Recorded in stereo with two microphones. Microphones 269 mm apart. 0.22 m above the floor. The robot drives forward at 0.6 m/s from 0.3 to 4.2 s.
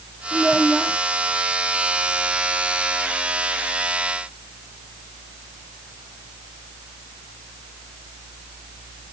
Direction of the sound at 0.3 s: Centre (ahead or behind).